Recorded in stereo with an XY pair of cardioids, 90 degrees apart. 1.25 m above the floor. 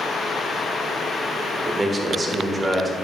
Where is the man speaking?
30° right, 1.3 m.